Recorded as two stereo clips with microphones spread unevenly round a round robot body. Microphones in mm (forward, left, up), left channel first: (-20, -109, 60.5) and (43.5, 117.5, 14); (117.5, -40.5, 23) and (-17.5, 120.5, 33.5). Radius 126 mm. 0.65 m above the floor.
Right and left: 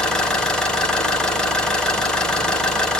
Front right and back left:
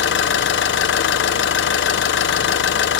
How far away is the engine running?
About 1.7 m.